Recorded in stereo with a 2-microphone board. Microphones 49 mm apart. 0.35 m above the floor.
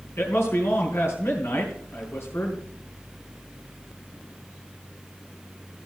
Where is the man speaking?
60° left (ahead or behind), 4.5 m.